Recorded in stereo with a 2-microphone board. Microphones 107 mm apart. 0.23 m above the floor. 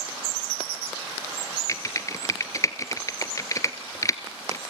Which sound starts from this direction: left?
Typing on a keyboard, at 1.7 s.